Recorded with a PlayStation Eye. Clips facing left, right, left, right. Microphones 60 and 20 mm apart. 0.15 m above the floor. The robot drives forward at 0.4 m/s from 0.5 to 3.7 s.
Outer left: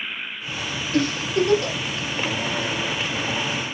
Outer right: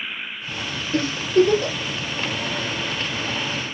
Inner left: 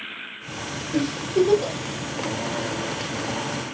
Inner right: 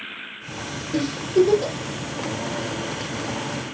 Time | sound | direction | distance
0.9 | a giggle | 35° right (ahead or behind) | 2 m